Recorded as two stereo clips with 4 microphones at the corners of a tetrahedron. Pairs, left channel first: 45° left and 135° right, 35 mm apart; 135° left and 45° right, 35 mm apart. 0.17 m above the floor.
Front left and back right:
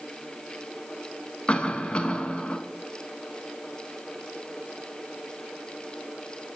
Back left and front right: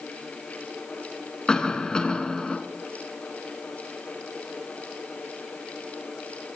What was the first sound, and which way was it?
A cough, 80° left.